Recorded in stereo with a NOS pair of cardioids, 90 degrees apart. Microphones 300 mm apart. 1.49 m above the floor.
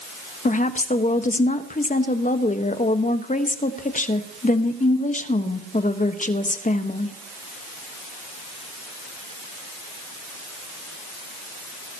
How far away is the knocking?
I don't hear knocking.